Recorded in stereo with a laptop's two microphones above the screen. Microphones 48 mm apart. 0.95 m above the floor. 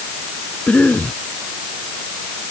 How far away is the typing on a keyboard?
No typing on a keyboard in this recording.